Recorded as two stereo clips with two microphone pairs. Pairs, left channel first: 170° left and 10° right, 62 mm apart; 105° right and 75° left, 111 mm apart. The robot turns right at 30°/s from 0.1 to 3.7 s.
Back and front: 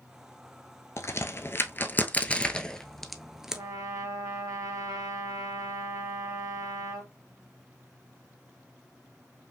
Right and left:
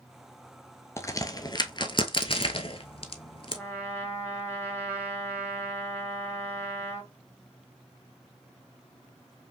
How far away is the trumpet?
About 1.8 m.